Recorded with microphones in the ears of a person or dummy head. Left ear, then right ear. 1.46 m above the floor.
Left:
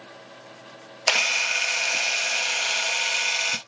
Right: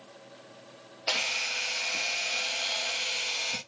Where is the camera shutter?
50° left (ahead or behind), 0.6 m.